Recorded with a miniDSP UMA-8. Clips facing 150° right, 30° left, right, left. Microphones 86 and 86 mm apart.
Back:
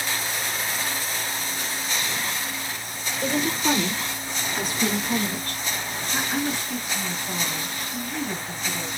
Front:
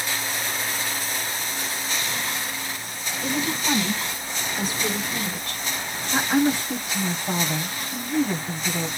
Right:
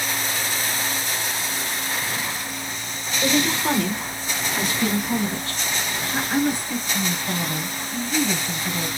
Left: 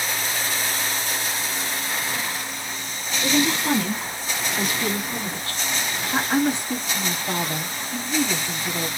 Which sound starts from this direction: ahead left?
A woman speaking, at 6.1 s.